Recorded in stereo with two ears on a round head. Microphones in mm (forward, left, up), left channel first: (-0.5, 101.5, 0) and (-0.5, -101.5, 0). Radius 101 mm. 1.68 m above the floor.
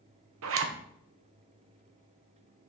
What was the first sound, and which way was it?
A zipper, 65° right (ahead or behind).